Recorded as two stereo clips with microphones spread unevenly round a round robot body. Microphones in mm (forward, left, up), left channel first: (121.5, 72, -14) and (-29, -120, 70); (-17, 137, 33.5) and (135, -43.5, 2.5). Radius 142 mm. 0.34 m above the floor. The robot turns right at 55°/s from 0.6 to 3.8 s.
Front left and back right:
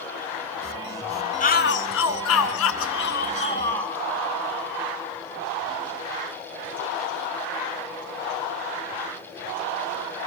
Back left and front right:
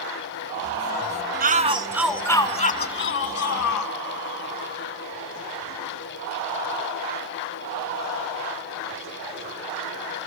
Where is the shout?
Straight ahead, 3 m; by 3.9 s 130° left, 3 m.